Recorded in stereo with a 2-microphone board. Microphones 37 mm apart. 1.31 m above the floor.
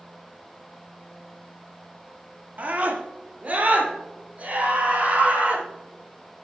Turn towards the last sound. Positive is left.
turn(degrees=-40)  # may be behind; listen again after turning